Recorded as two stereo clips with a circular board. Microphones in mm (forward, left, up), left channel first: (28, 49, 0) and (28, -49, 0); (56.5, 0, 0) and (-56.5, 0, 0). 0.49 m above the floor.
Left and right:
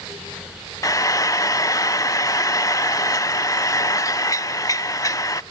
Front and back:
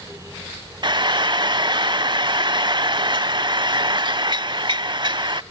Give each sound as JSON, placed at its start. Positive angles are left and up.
{"t": 0.8, "sound": "frying", "azimuth_deg": 140, "distance_m": 0.5}